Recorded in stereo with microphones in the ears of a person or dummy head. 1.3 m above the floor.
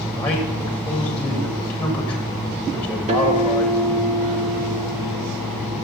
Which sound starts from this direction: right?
A guitar, at 3.1 s.